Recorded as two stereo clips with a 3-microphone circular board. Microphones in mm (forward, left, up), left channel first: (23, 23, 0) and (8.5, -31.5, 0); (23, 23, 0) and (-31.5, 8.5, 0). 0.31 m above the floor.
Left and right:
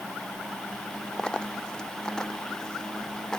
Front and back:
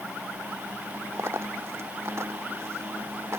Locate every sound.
1.2 s a dropped coin: 155° left